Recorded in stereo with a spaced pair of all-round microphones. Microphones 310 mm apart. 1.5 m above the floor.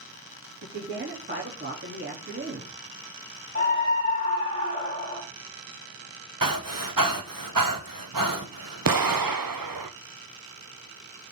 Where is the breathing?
70° right (ahead or behind), 1.5 m.